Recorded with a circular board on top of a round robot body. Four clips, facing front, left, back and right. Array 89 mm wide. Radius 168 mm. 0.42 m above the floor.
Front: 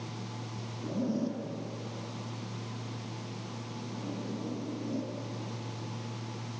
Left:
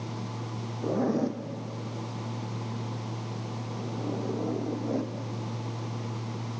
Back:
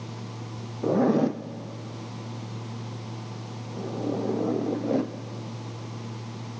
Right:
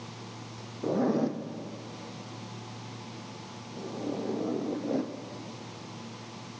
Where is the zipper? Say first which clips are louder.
Even, back 11 dB; straight behind, 1.1 m.